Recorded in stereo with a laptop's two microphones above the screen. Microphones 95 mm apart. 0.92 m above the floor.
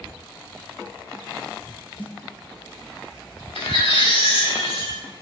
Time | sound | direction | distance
2.0 | a snare drum | 70° left (ahead or behind) | 2.5 m
3.5 | a baby crying | 85° left | 6.5 m